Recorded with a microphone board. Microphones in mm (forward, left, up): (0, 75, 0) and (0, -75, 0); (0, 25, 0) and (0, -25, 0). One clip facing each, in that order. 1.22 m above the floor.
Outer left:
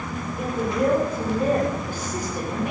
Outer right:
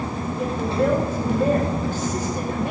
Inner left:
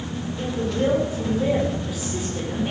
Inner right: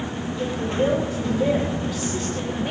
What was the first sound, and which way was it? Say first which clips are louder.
A woman speaking: outer right 1 dB, inner right 1 dB; 15° left (ahead or behind).